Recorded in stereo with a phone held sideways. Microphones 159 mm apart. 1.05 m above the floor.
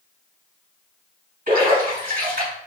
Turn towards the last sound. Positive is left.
turn(degrees=-60)  # may be behind; listen again after turning